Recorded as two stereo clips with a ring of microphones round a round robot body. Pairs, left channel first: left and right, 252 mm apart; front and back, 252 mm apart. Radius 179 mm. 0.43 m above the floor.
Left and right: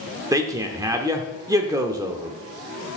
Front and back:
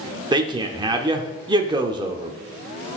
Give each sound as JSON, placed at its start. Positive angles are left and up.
{"t": 0.3, "sound": "a man speaking", "azimuth_deg": -145, "distance_m": 0.8}